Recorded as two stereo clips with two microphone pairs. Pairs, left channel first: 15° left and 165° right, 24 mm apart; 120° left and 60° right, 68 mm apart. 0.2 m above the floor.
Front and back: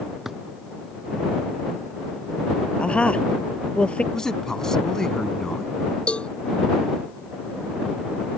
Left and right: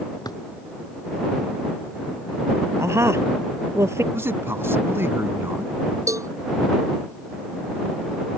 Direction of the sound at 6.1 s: 25° right.